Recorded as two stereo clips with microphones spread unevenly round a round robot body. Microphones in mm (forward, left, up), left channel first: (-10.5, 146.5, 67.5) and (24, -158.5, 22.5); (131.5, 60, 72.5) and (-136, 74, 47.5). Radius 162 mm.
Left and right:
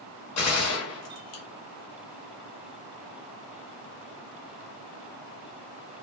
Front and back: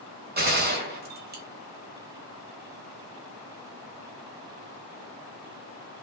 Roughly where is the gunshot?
Behind left.